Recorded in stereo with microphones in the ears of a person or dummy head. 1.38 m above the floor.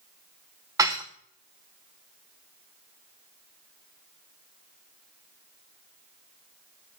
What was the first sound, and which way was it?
Dishes clattering, 20° right (ahead or behind).